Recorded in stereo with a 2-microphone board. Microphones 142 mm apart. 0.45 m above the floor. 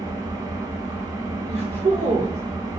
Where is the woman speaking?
45° right (ahead or behind), 1.4 m.